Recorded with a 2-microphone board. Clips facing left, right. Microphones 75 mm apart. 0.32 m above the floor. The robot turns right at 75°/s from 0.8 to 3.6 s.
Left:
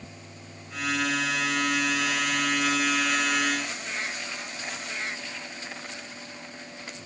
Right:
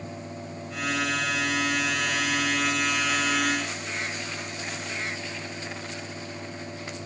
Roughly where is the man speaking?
I don't hear a man speaking.